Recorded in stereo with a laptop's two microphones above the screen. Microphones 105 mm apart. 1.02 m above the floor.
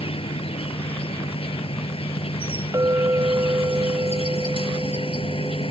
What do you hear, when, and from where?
0.0 s an insect: 65° left (ahead or behind)
2.7 s a clink: 35° right (ahead or behind)